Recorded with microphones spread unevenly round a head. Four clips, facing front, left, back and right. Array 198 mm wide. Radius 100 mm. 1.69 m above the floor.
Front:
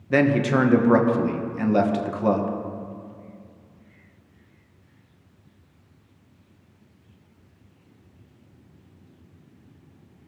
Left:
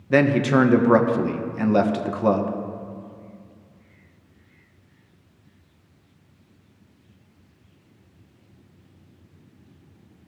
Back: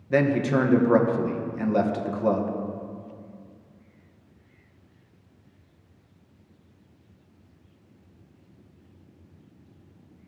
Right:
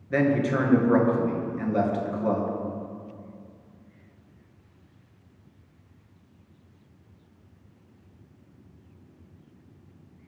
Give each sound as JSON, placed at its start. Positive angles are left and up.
{"t": 0.1, "sound": "a man speaking", "azimuth_deg": 40, "distance_m": 1.2}